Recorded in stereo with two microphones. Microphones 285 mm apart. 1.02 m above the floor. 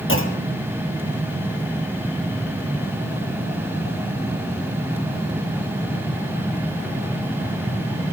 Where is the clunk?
45° left (ahead or behind), 1.3 m.